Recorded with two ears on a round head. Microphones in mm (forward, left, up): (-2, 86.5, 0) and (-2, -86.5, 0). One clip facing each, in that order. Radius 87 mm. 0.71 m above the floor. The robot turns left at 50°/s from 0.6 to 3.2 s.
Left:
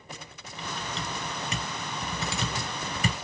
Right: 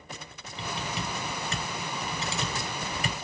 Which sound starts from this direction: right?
Typing on a keyboard, at 0.6 s.